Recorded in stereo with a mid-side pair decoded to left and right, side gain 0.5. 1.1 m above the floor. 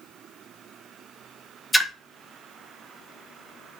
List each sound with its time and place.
1.7 s a splash: 5° left, 0.7 m